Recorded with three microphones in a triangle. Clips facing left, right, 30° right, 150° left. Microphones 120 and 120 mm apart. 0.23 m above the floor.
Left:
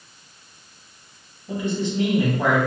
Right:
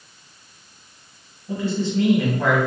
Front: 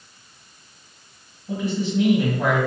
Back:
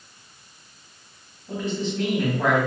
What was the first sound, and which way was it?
A man speaking, 45° left.